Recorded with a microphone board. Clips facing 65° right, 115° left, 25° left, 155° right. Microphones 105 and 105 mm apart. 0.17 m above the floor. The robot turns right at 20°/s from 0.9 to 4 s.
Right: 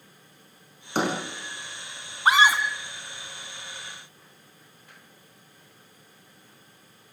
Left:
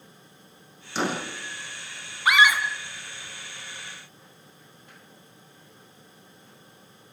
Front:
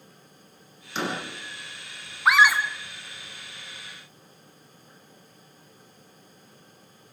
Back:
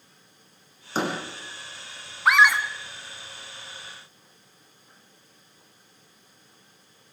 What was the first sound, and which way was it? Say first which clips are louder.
A door slam: right 2 dB, back 3 dB; 110° right.